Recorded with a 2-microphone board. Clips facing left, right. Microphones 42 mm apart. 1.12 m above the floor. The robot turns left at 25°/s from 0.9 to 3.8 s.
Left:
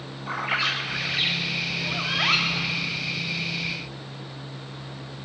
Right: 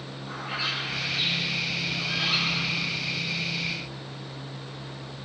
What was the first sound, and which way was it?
A bird, 115° left.